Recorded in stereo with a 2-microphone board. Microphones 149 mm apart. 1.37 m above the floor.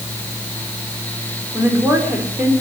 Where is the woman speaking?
15° right (ahead or behind), 4.5 m.